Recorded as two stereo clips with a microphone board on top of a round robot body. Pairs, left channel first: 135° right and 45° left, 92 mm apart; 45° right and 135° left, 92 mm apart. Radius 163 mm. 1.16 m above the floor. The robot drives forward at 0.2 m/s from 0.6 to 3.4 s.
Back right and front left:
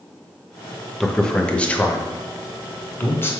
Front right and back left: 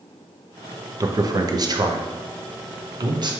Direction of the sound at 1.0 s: 140° left.